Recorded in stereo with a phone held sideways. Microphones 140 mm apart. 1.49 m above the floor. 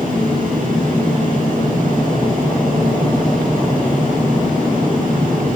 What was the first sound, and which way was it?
A fan, 80° right.